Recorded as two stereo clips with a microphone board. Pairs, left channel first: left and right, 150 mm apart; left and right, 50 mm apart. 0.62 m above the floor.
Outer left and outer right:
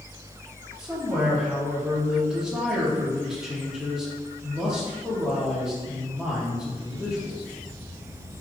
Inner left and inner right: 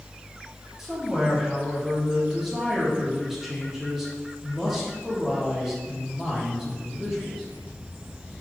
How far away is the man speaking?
About 1.0 m.